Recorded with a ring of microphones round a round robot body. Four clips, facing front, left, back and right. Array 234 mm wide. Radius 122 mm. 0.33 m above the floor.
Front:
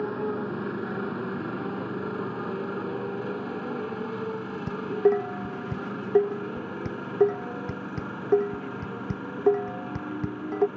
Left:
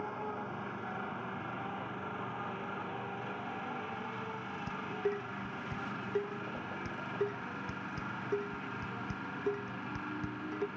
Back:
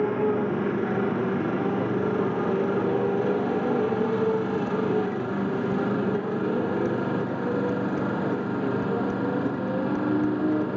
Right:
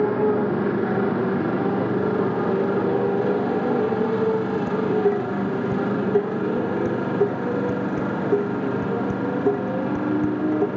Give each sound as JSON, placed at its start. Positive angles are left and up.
{"t": 0.0, "sound": "a motorcycle", "azimuth_deg": -110}
{"t": 4.7, "sound": "dishes clattering", "azimuth_deg": -40}